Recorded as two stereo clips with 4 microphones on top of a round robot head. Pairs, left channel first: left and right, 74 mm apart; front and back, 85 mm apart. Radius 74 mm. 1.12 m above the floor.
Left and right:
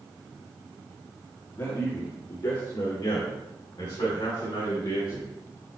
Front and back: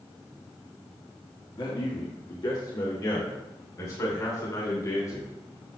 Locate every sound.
1.5 s a man speaking: 25° left, 3 m; by 5.3 s 45° left, 5 m